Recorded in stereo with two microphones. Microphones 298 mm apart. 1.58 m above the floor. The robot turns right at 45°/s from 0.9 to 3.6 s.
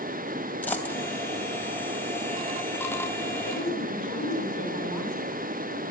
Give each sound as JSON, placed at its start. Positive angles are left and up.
{"t": 0.6, "sound": "a dropped coin", "side_deg": 5, "distance_m": 3.0}
{"t": 3.5, "sound": "a woman speaking", "side_deg": 85, "distance_m": 7.0}